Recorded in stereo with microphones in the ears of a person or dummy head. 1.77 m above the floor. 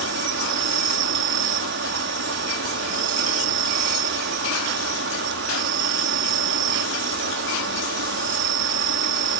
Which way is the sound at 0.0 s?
65° right (ahead or behind).